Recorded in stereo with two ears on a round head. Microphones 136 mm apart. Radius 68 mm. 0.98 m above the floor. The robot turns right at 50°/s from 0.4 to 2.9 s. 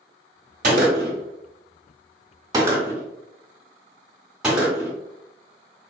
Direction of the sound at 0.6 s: 55° right (ahead or behind).